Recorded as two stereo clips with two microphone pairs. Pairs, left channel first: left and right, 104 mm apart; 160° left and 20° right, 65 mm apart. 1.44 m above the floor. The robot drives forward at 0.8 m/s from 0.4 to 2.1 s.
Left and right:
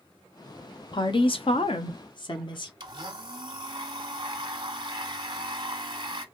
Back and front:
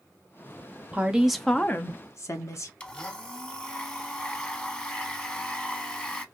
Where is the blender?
135° right, 0.6 m.